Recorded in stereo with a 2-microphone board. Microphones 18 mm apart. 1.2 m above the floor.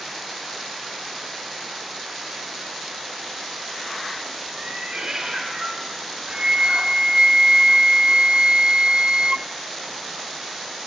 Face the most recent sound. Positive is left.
turn(degrees=-45)  # may be behind; listen again after turning